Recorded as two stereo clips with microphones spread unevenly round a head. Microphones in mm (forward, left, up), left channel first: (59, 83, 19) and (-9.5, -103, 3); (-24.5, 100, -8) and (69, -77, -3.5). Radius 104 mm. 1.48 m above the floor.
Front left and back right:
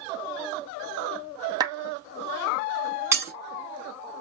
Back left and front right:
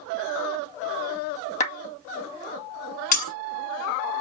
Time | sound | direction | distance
1.6 | a clap | 175° left | 2 m
3.1 | breaking glass | 170° left | 6 m